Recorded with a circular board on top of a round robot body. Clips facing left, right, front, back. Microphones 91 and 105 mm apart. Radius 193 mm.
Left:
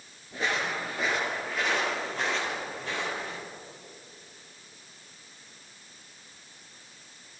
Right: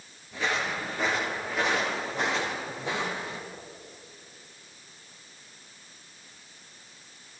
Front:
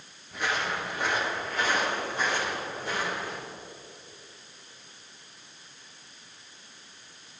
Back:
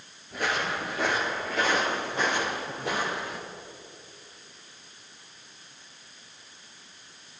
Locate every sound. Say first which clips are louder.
0.3 s footsteps: even, back 1 dB; 145° left, 1.2 m; by 3.4 s 165° right, 2.5 m